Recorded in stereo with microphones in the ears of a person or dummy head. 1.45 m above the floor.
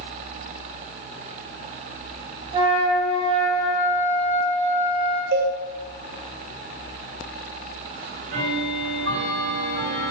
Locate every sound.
2.5 s a flute: 25° right (ahead or behind), 4.5 m
5.3 s a cowbell: 55° right (ahead or behind), 2 m
8.0 s ticking: 70° right (ahead or behind), 6 m